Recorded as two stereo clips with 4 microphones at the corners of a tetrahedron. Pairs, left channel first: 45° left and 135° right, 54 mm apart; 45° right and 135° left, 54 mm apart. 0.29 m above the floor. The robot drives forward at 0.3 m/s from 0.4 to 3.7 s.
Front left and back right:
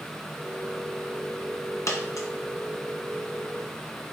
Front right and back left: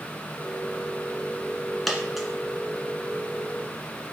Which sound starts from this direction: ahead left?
A dropped coin, at 1.9 s.